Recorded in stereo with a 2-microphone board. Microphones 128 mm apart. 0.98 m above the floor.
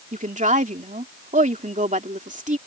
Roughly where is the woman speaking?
Right.